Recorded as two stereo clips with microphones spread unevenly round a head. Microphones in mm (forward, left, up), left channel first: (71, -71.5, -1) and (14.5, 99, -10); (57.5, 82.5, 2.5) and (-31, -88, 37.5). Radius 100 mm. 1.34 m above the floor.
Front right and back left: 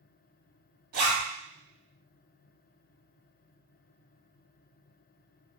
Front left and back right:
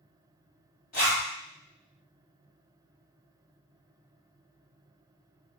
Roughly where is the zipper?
Left.